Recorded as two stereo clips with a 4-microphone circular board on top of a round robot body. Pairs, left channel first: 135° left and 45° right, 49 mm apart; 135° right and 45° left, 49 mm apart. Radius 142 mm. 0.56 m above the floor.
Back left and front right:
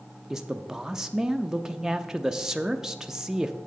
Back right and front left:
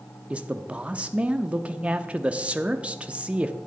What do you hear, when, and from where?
0.3 s a man speaking: 20° left, 0.6 m